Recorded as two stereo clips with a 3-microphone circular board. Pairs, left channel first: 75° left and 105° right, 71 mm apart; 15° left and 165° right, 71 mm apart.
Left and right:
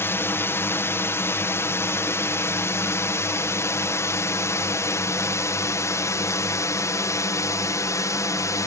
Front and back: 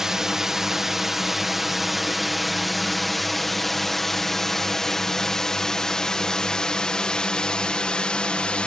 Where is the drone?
115° left; by 8.7 s 85° left.